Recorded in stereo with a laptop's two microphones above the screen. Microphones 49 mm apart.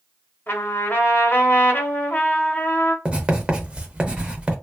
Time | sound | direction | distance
0.5 | a trumpet | 45° left (ahead or behind) | 1.0 m
3.0 | writing | 20° right (ahead or behind) | 0.7 m